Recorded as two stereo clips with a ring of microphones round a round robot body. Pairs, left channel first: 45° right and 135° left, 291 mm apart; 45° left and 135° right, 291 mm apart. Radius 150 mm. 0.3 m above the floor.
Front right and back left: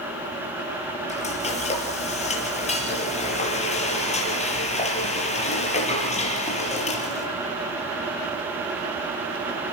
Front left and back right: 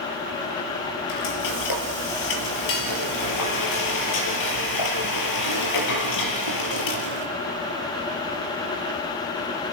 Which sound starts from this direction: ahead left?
Frying, at 1.1 s.